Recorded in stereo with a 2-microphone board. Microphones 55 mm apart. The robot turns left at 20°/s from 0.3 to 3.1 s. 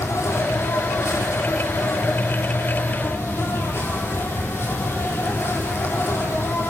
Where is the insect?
110° left, 5 m; by 6.7 s 55° left, 5 m.